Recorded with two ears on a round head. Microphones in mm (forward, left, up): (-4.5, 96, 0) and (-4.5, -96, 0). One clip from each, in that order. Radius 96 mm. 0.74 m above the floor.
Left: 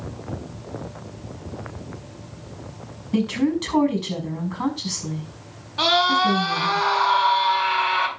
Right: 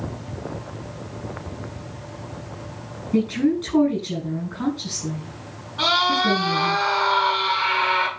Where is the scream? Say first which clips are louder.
Left 1 dB; 75° left (ahead or behind), 9 m.